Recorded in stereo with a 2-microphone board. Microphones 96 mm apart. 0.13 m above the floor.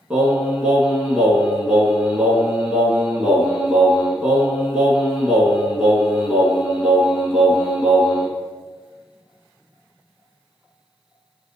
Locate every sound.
0.1 s singing: 10° right (ahead or behind), 1.4 m